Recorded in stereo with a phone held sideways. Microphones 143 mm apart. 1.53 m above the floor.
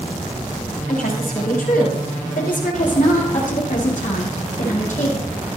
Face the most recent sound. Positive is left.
turn(degrees=55)  # may be behind; listen again after turning